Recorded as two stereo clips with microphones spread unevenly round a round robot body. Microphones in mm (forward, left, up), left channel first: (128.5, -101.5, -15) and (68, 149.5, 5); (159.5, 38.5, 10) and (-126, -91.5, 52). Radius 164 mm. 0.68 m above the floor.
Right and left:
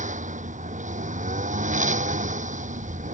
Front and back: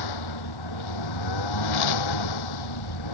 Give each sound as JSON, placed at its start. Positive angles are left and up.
{"t": 0.0, "sound": "a lawn mower", "azimuth_deg": 40}